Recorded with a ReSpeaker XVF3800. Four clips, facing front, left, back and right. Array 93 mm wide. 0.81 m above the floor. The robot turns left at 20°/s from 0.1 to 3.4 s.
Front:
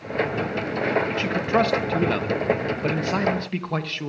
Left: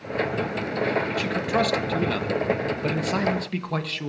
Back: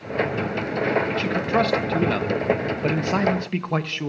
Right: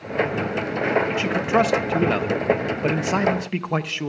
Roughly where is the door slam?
I don't hear a door slam.